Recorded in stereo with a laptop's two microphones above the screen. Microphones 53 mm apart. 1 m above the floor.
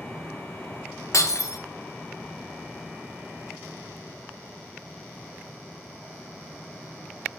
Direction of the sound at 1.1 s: 70° left (ahead or behind).